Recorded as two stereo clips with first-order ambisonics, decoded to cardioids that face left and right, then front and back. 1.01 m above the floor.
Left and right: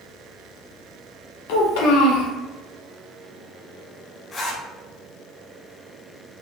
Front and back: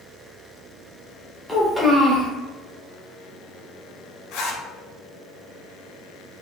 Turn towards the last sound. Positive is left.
turn(degrees=25)